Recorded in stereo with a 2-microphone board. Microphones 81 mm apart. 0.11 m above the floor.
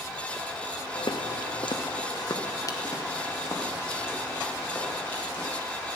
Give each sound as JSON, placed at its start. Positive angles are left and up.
{"t": 0.9, "sound": "footsteps", "side_deg": 70, "distance_m": 0.9}